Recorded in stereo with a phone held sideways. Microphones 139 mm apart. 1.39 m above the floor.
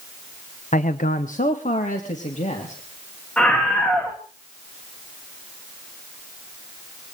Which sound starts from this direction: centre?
A scream, at 3.4 s.